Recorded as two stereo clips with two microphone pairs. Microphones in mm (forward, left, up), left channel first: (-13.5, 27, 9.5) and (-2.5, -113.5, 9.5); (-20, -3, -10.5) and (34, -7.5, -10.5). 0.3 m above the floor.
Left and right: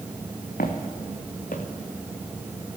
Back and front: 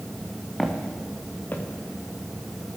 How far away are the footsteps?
About 1.8 m.